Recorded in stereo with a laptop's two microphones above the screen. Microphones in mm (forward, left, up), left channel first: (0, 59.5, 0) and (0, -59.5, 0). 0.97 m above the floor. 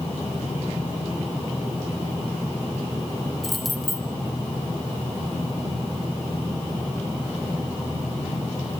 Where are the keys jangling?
Centre (ahead or behind), 4 m.